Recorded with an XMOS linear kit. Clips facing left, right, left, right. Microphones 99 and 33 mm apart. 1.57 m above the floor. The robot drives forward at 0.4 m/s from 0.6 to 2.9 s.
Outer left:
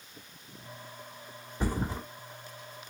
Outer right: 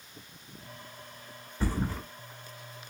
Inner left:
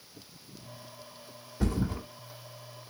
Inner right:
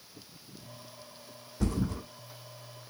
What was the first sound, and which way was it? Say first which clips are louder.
A thud: even, inner left 1 dB; 15° left (ahead or behind).